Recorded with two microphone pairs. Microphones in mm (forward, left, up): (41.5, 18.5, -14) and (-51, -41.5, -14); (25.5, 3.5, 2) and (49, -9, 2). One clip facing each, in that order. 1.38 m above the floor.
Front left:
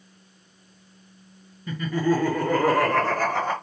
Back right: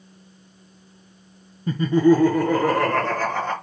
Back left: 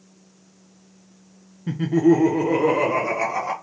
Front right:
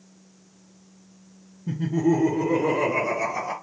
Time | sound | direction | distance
1.7 | laughter | 165° left | 0.8 m